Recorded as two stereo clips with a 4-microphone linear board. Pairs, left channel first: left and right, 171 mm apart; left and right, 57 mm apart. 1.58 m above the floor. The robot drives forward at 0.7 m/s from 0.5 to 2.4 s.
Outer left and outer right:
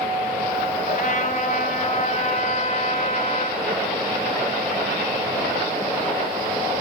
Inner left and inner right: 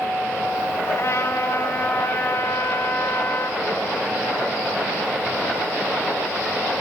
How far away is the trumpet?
About 2.5 m.